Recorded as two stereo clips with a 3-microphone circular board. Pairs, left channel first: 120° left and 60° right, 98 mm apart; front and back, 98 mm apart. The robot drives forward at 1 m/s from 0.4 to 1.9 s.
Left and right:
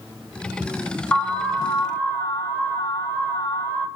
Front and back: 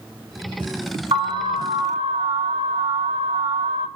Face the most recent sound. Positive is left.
turn(degrees=-175)